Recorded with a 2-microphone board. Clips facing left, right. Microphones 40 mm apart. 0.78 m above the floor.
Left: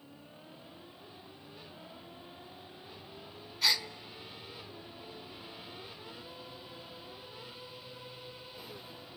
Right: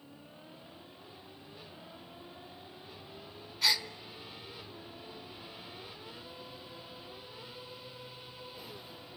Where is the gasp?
Centre (ahead or behind), 1.0 m.